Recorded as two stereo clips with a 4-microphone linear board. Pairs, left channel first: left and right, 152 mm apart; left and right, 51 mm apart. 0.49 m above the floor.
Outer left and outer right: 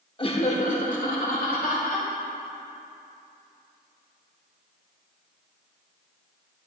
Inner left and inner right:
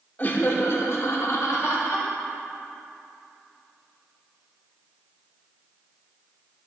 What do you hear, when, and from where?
0.2 s laughter: 30° left (ahead or behind), 0.9 m; by 2.1 s 65° left (ahead or behind), 2.5 m